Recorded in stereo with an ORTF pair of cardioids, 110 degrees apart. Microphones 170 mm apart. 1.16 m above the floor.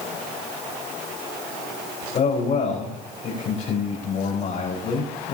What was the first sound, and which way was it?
A man speaking, 45° left.